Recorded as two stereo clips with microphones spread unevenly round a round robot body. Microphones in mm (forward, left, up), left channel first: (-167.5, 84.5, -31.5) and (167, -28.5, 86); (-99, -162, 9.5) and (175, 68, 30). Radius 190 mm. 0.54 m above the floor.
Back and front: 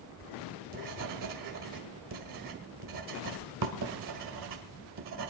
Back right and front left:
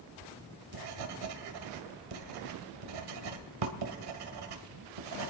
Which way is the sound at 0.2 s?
20° left.